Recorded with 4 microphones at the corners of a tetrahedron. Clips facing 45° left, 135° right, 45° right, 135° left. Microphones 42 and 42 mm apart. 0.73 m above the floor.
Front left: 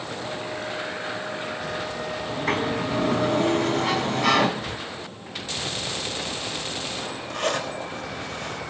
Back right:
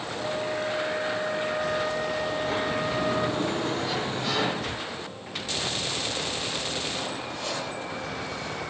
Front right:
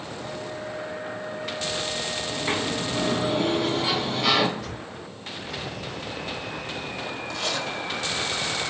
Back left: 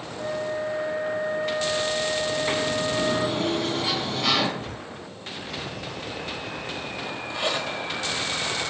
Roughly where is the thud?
Behind.